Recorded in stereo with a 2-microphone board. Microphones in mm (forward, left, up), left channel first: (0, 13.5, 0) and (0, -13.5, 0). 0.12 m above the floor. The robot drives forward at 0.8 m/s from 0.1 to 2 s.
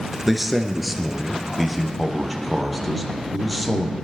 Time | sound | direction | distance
0.3 | a man speaking | centre (ahead or behind) | 1.4 m